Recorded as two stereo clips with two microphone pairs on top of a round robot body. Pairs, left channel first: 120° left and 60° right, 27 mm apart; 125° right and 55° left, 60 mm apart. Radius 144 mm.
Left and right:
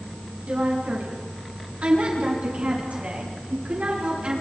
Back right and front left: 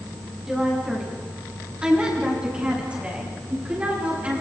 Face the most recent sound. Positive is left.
turn(degrees=-15)